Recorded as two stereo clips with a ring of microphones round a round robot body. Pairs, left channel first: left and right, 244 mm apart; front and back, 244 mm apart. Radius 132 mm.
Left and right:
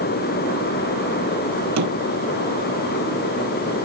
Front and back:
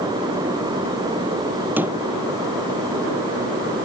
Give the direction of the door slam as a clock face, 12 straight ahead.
3 o'clock.